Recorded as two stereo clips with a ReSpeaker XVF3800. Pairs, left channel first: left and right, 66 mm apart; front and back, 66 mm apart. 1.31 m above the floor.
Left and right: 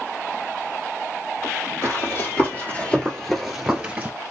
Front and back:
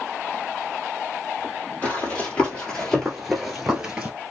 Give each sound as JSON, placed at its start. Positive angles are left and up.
{"t": 1.8, "sound": "running footsteps", "azimuth_deg": 65, "distance_m": 2.0}